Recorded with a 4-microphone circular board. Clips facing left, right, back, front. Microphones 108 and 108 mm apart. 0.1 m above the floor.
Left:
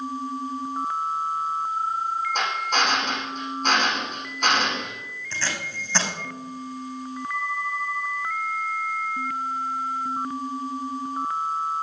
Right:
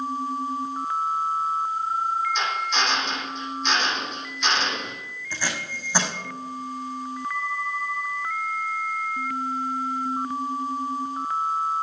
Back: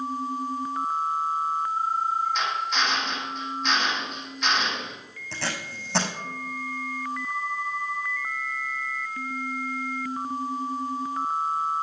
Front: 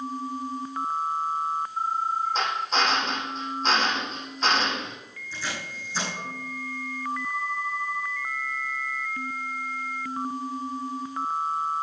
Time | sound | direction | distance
2.4 | a drill | 55° left | 6 m
5.3 | tape being pulled | 170° right | 5 m